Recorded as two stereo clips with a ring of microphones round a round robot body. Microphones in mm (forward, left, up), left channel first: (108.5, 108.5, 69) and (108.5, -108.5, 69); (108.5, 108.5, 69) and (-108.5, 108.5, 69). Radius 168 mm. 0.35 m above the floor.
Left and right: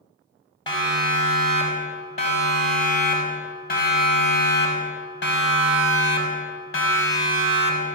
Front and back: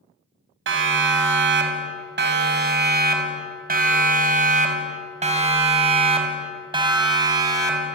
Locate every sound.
0.7 s a siren: 160° left, 4.5 m; by 8.0 s 105° left, 4.5 m